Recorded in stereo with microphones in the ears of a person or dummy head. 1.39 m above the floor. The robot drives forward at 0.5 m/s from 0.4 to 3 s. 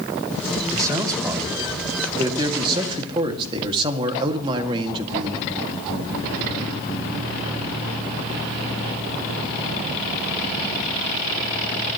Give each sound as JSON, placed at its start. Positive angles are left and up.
{"t": 0.7, "sound": "a man speaking", "side_deg": -20, "distance_m": 3.0}